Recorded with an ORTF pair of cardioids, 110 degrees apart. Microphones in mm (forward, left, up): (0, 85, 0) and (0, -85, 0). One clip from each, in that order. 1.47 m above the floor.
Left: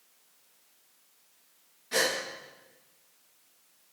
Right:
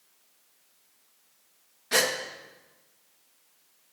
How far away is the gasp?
About 2 m.